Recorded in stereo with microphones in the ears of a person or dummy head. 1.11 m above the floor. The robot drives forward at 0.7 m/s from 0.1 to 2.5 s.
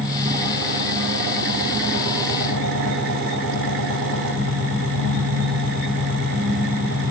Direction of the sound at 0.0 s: 45° right (ahead or behind).